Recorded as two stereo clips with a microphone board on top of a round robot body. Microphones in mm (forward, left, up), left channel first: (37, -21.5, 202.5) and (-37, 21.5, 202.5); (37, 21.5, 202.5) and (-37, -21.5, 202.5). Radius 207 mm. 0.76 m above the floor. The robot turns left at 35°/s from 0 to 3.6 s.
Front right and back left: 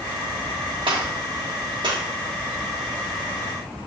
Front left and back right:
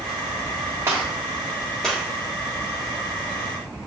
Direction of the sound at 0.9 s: 150° left.